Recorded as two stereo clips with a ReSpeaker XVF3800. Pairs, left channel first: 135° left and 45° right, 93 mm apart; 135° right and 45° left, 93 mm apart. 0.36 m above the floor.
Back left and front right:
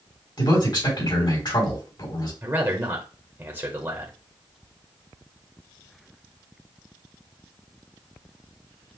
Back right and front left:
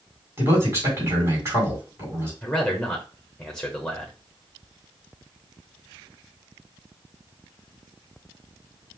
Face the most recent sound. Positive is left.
turn(degrees=-55)